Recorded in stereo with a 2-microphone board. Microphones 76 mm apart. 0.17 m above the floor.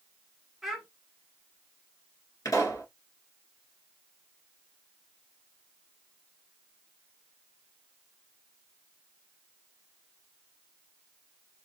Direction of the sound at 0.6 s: 5° right (ahead or behind).